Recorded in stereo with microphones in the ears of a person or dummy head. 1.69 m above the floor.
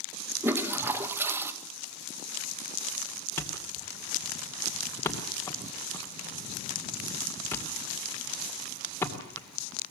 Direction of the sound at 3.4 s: 15° left (ahead or behind).